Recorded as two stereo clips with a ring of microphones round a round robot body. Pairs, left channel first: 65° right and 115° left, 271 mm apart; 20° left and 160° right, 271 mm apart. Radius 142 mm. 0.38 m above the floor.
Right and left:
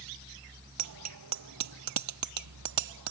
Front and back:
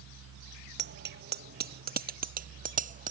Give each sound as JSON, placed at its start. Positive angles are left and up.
{"t": 0.8, "sound": "a bicycle bell", "azimuth_deg": 150}